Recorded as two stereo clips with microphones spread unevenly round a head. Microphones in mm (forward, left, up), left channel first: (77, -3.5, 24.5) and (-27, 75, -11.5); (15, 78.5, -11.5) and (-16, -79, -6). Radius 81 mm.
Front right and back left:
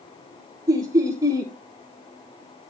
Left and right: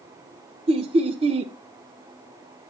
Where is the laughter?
155° right, 0.7 m.